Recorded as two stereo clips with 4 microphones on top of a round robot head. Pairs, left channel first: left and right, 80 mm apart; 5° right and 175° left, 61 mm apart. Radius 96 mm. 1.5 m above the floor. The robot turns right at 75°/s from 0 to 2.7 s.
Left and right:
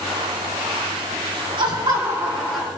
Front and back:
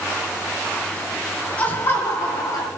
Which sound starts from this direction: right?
Laughter, at 1.6 s.